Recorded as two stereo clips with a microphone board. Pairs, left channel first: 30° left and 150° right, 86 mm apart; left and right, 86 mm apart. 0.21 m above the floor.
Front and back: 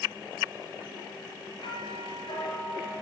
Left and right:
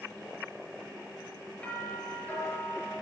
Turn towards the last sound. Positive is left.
turn(degrees=15)